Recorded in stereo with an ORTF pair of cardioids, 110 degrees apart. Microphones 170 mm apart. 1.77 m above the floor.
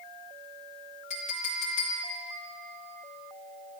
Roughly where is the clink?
Ahead left.